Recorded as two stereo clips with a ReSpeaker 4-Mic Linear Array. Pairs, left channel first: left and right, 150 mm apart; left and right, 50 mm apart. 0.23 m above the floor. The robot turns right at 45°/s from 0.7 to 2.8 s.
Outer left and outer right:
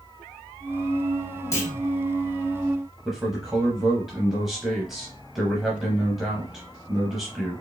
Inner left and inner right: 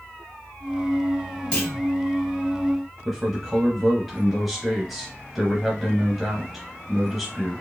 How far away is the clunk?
About 1.7 m.